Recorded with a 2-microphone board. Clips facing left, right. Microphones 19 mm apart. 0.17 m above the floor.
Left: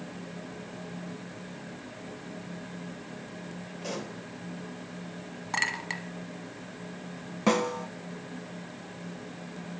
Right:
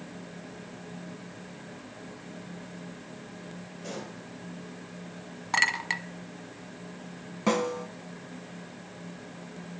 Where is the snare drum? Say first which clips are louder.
Left 1 dB; 10° left (ahead or behind), 0.6 m.